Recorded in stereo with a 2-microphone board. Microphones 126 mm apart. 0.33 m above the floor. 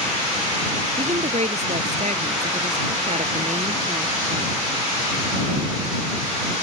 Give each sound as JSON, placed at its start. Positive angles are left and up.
{"t": 1.0, "sound": "a woman speaking", "side_deg": -60}